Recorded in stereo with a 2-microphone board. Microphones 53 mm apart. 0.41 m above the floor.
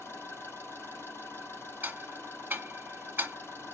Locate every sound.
0.0 s an engine running: 50° left (ahead or behind), 3.5 m
1.8 s ticking: 40° right (ahead or behind), 1.4 m